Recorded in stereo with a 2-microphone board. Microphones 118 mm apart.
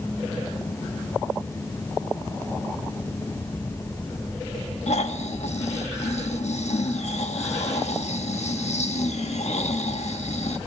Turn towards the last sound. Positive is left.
turn(degrees=70)  # may be behind; listen again after turning